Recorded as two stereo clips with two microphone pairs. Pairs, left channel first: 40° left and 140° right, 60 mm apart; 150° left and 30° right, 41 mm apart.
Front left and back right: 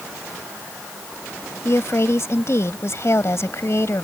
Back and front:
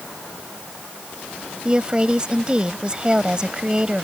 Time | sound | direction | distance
1.6 | a woman speaking | 30° left | ?